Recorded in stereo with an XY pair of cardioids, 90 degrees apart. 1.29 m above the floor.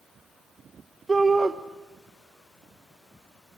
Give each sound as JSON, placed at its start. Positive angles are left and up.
{"t": 1.1, "sound": "a shout", "azimuth_deg": -30, "distance_m": 1.4}